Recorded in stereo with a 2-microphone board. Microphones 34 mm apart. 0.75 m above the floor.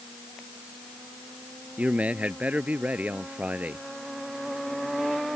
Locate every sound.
1.8 s a man speaking: 40° right (ahead or behind); by 3.9 s 45° right (ahead or behind)